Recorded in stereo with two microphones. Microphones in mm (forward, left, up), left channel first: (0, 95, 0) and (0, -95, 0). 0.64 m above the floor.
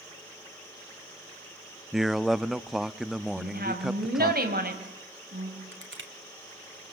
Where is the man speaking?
Centre (ahead or behind), 0.6 m.